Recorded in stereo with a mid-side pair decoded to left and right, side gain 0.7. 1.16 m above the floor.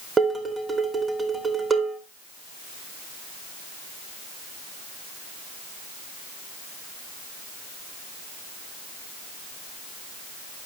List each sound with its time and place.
0.2 s dishes clattering: 20° right, 2.5 m